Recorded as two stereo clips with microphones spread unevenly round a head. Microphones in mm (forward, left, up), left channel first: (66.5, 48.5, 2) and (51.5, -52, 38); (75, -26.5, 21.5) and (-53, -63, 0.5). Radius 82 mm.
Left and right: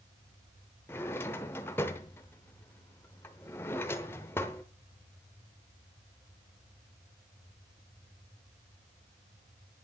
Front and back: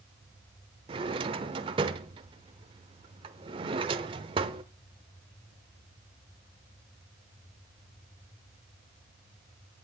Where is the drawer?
175° left, 0.7 m.